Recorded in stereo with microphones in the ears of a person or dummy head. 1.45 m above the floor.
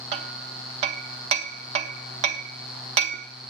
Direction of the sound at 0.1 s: 35° right (ahead or behind).